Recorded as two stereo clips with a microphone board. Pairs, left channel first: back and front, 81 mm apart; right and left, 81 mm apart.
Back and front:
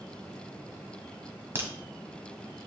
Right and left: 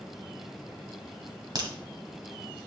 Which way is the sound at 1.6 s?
60° left.